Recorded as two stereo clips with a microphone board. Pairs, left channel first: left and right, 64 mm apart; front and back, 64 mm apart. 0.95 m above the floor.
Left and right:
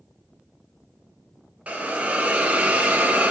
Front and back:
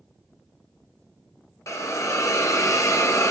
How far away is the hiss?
About 0.7 m.